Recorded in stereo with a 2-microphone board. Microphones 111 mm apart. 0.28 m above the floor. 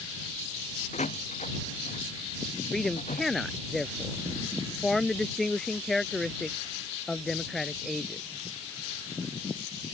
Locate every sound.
0.9 s a door slam: 80° left
2.7 s a man speaking: centre (ahead or behind)